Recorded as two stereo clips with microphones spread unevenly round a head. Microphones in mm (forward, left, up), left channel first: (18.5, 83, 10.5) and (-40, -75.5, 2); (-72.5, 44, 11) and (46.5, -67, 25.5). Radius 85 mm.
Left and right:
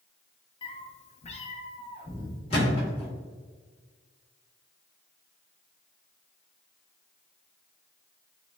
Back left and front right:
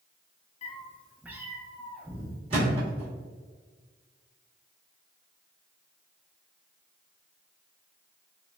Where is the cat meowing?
105° left, 0.5 m; by 2.4 s 10° left, 1.3 m.